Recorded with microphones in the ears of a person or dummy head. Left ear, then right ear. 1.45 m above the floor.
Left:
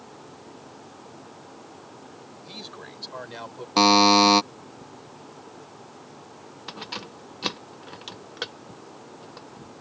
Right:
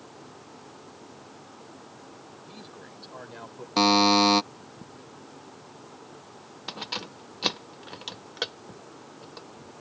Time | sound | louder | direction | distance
2.4 | a man speaking | left 10 dB | 40° left (ahead or behind) | ?
3.8 | a buzzer | left 4 dB | 10° left (ahead or behind) | ?
6.7 | keys jangling | right 2 dB | 10° right (ahead or behind) | ?